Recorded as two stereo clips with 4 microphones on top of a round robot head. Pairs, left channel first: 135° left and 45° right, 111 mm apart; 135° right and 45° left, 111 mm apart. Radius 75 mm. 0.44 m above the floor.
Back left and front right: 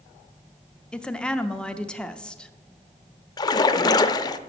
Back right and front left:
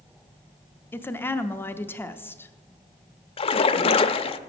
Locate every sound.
0.9 s a woman speaking: 155° right, 0.7 m
3.4 s a splash: 170° right, 0.5 m